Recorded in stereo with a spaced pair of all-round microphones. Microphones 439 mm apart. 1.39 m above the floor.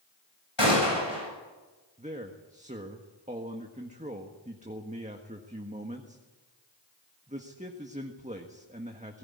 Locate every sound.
0.6 s a gunshot: 80° left, 7.5 m
2.0 s a man speaking: 15° right (ahead or behind), 1.5 m